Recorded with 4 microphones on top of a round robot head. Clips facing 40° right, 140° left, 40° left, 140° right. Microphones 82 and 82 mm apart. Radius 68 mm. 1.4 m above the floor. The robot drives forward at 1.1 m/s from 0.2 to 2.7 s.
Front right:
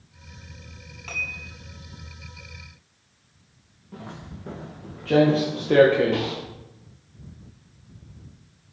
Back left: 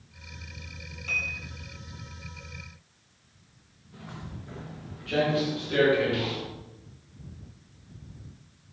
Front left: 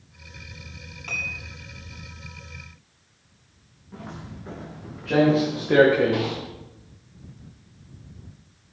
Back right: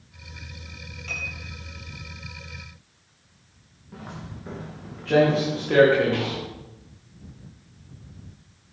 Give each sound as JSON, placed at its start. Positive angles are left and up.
{"t": 1.1, "sound": "dishes clattering", "azimuth_deg": 0, "distance_m": 6.5}
{"t": 3.9, "sound": "footsteps", "azimuth_deg": -50, "distance_m": 6.0}